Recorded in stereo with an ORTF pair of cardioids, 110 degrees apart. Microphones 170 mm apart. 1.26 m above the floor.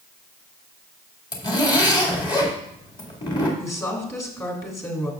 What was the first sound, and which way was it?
A zipper, 30° left.